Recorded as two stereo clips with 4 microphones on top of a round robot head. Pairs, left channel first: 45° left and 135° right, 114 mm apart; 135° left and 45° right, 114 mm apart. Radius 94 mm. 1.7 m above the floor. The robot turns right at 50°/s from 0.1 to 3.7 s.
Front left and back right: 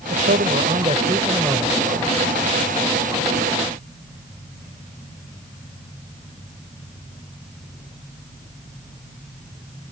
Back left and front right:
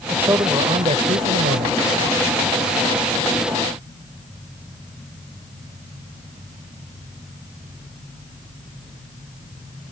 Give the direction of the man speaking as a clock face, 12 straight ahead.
4 o'clock.